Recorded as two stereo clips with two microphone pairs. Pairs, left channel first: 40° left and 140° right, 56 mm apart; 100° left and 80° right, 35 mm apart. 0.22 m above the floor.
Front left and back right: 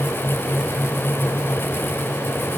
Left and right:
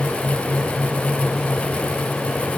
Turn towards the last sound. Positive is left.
No sound to turn to.